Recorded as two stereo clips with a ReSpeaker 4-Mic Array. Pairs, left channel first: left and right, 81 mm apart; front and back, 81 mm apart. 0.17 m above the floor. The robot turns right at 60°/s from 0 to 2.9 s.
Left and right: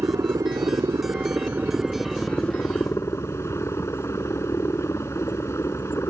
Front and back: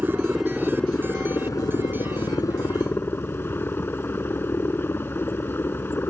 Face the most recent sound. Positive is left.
turn(degrees=50)